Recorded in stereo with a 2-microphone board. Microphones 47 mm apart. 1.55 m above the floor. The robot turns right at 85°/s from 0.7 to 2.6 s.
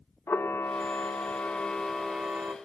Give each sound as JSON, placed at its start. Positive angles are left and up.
{"t": 0.3, "sound": "a camera shutter", "azimuth_deg": 75, "distance_m": 1.4}